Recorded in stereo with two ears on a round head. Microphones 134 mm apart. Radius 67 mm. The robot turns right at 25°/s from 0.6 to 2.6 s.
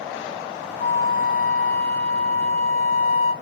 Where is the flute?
60° left, 0.6 m; by 3.3 s 105° left, 0.6 m.